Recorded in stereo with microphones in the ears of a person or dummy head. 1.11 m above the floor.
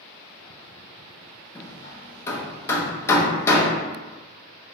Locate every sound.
1.6 s hammering: 20° left (ahead or behind), 0.8 m